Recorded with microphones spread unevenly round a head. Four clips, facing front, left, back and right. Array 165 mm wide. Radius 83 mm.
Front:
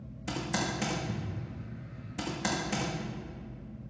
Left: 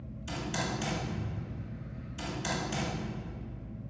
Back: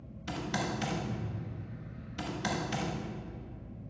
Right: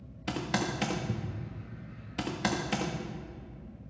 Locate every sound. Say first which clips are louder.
0.3 s typing on a keyboard: right 3 dB, front 1 dB; 75° right, 1.3 m